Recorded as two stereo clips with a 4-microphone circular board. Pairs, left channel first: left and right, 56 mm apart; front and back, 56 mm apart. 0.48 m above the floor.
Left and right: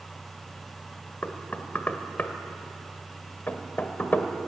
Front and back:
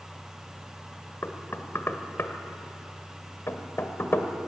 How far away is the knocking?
About 1.5 m.